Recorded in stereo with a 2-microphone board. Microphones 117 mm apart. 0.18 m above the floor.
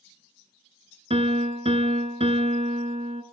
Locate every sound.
1.1 s a piano: 65° right (ahead or behind), 0.7 m